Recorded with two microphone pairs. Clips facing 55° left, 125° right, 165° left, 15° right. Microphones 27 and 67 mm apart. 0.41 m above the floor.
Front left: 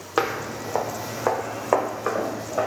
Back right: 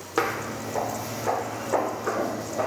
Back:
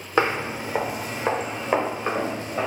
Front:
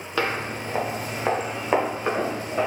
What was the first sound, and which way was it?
Footsteps, 110° left.